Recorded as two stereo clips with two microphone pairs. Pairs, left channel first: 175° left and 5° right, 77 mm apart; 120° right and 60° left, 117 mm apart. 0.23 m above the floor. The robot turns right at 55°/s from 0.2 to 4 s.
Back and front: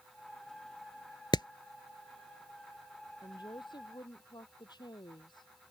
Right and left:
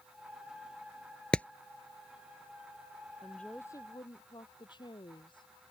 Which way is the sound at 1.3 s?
160° left.